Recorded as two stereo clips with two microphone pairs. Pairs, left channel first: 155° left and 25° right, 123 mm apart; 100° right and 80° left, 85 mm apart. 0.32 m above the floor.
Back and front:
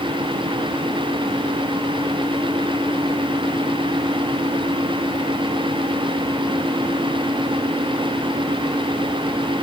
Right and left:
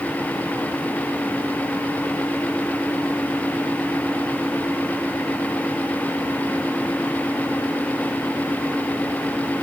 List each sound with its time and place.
Only background noise.